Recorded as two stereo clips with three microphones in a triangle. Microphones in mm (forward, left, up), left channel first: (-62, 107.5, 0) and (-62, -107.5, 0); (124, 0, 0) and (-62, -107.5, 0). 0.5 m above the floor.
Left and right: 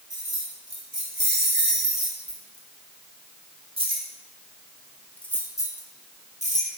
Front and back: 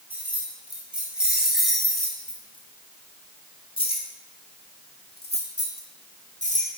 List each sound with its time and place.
0.1 s keys jangling: 70° right, 2.5 m; by 6.7 s 45° left, 1.5 m